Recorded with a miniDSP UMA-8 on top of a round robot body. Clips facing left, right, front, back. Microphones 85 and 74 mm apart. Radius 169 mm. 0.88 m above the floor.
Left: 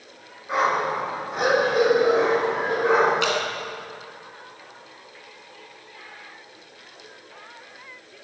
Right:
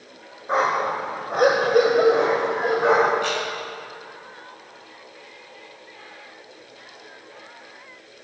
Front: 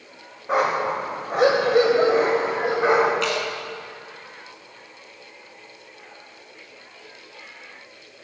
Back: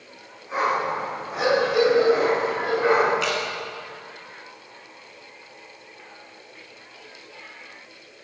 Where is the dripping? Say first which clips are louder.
Left 2 dB, front 1 dB; 90° left, 2.5 m.